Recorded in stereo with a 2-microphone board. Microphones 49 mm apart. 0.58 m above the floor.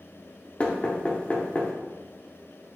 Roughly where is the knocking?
Left.